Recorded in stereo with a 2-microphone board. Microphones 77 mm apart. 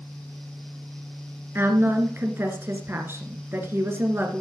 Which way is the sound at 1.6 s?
30° right (ahead or behind).